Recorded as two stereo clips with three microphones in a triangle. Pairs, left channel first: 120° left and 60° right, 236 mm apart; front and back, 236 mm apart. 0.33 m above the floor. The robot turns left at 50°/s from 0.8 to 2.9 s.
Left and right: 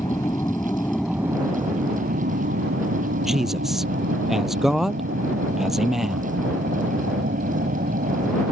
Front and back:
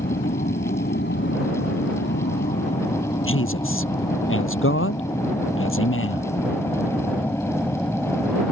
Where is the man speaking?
30° left.